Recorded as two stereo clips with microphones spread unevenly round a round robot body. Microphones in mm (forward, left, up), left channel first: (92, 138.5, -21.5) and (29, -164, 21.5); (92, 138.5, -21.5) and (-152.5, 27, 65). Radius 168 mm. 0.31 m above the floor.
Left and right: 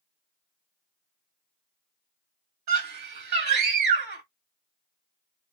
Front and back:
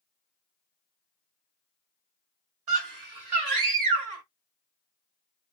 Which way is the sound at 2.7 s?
135° right.